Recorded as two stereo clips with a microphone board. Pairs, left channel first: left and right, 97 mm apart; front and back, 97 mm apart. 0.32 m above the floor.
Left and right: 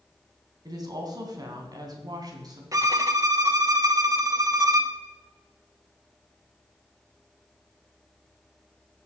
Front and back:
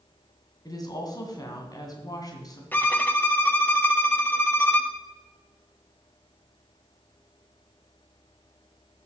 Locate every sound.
0.7 s a woman speaking: 45° right, 2.5 m
2.7 s a violin: 60° right, 0.9 m